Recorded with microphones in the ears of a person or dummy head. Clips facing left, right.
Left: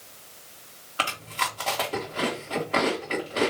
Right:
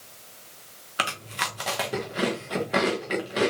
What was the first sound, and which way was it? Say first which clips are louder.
Chewing: left 1 dB; 15° right (ahead or behind).